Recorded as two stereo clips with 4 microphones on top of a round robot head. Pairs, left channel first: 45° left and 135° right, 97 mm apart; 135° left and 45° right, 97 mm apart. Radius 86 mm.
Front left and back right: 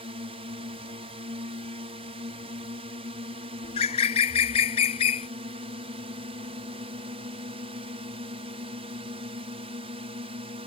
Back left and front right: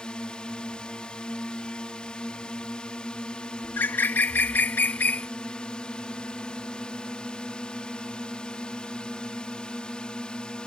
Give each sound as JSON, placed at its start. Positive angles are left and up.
{"t": 0.0, "sound": "a drone", "azimuth_deg": -145}
{"t": 3.6, "sound": "a bird", "azimuth_deg": 65}